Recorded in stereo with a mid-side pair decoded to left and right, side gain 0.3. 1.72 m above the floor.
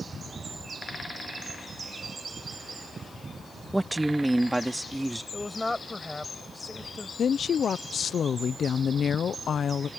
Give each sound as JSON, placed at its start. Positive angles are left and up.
{"t": 3.7, "sound": "a woman speaking", "azimuth_deg": -20}
{"t": 5.3, "sound": "a woman speaking", "azimuth_deg": 20}
{"t": 7.2, "sound": "a woman speaking", "azimuth_deg": 70}